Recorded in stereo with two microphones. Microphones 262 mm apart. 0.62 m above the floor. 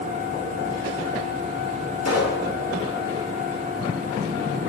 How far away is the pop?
About 2 m.